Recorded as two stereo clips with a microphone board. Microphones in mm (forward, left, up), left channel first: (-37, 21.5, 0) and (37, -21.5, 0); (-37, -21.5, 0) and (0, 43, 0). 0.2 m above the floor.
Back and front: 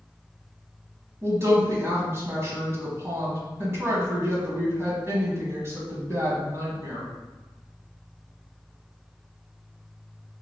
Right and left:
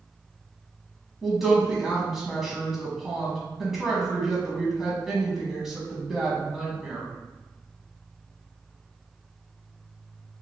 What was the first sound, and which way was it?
A woman speaking, 20° right.